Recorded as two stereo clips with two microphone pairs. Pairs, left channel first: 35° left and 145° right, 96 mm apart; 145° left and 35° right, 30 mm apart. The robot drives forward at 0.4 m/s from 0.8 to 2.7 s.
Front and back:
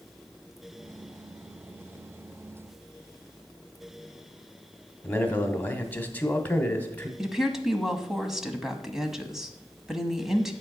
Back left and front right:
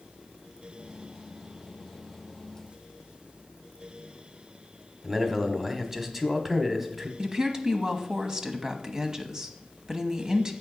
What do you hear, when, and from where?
5.0 s a man speaking: 20° left, 1.3 m
7.2 s a woman speaking: 65° right, 1.1 m